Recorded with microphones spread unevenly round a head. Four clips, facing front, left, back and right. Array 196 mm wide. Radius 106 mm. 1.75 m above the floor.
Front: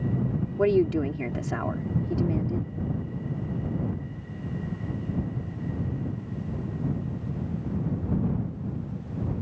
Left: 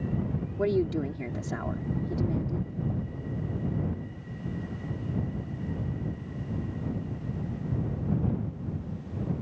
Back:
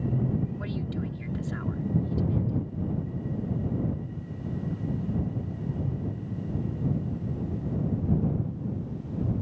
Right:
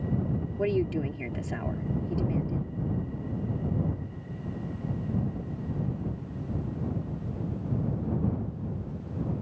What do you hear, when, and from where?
0.6 s a woman speaking: 10° left